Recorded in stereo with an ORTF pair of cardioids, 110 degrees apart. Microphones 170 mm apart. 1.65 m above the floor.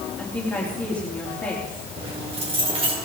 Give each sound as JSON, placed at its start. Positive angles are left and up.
{"t": 0.2, "sound": "a woman speaking", "azimuth_deg": 10, "distance_m": 3.5}
{"t": 2.0, "sound": "keys jangling", "azimuth_deg": -35, "distance_m": 5.0}